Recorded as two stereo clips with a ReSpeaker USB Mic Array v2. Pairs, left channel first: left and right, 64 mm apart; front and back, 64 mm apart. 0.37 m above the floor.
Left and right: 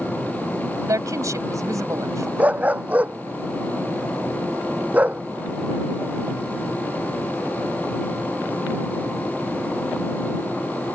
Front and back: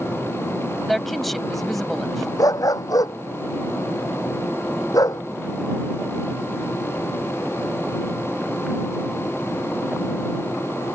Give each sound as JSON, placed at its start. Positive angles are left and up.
{"t": 0.9, "sound": "a woman speaking", "azimuth_deg": -90}
{"t": 2.4, "sound": "a dog barking", "azimuth_deg": -25}